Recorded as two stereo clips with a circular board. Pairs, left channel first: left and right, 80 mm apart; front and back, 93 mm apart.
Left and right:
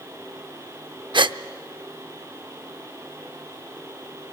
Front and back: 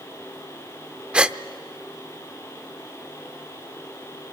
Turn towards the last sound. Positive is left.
turn(degrees=-100)